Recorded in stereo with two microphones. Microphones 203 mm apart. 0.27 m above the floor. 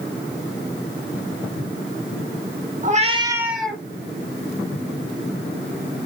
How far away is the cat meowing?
About 0.6 m.